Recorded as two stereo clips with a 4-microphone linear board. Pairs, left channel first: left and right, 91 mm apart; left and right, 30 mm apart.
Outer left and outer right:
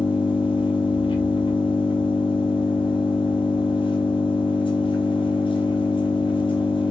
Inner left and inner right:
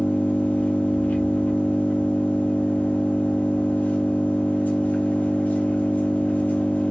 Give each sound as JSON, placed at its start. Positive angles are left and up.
{"t": 0.0, "sound": "an engine running", "side_deg": 75, "distance_m": 0.8}